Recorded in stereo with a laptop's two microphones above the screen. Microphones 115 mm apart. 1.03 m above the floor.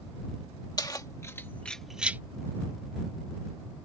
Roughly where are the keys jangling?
Left.